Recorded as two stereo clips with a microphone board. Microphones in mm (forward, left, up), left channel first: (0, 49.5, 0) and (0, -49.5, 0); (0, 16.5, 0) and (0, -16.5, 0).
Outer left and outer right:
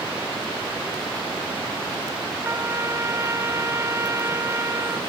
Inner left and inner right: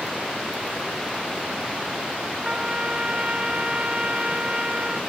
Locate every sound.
2.4 s a trumpet: 30° right (ahead or behind)